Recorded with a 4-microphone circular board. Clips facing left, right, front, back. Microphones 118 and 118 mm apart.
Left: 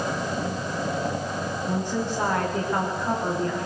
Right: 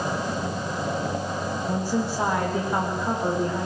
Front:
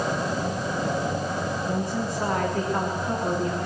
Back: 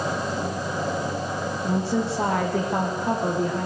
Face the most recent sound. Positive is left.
turn(degrees=-165)